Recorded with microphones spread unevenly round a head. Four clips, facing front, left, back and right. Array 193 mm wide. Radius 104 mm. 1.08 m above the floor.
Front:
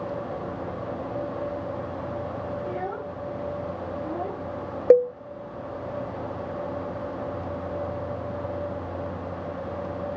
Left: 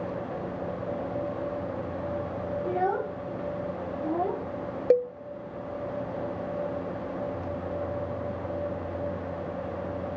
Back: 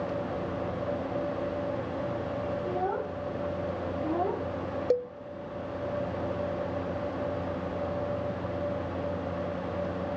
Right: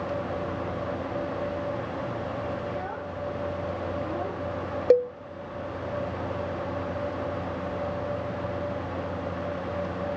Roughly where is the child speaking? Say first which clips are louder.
Left 6 dB, back 1 dB; behind left.